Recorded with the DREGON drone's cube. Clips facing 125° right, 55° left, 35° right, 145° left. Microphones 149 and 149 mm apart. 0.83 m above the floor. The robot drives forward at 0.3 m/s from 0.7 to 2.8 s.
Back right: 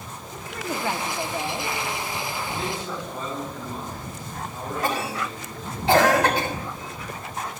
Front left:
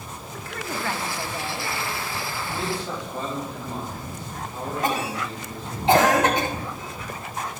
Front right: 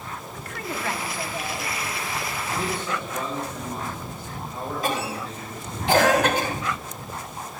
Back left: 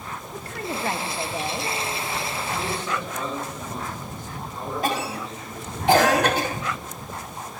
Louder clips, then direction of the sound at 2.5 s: Front left 1 dB, front right 1 dB; 75° left.